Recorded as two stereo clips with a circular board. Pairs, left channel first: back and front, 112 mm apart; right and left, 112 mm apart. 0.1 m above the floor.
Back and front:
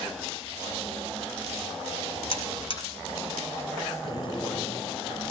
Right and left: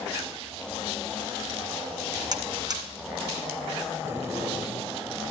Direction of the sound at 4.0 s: 150° left.